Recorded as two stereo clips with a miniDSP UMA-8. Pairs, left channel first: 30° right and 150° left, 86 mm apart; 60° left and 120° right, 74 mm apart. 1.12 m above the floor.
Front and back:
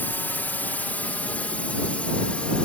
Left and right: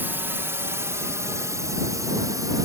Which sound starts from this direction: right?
A drone, at 0.0 s.